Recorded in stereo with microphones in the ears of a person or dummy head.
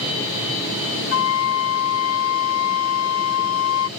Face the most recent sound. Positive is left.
turn(degrees=80)